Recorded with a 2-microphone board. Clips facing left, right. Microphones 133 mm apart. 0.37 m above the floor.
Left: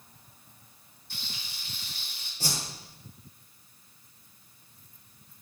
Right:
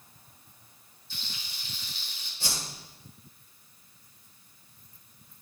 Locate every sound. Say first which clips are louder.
1.1 s frying: left 1 dB; 65° left (ahead or behind), 2.5 m
2.4 s a whoosh: left 3 dB; 40° left (ahead or behind), 2.5 m